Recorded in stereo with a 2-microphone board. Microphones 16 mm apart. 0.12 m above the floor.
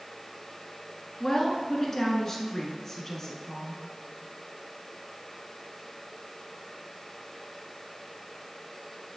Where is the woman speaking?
30° left (ahead or behind), 1.1 m.